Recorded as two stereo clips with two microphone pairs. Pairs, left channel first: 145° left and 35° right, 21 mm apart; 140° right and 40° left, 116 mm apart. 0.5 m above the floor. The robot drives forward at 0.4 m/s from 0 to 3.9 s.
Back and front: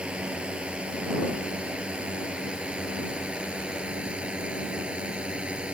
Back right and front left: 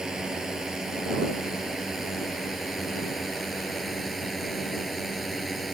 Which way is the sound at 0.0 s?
45° right.